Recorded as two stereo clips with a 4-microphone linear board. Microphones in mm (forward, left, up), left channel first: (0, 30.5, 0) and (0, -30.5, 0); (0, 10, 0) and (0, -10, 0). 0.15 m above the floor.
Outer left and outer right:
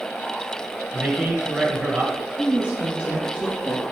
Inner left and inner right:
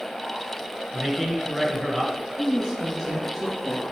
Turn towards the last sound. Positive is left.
turn(degrees=-25)  # may be behind; listen again after turning